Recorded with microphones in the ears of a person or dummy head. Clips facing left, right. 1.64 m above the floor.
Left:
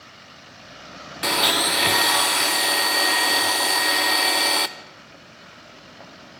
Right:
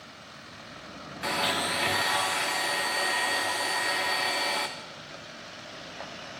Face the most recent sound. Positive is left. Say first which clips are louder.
# left 6 dB
turn(degrees=60)  # may be behind; listen again after turning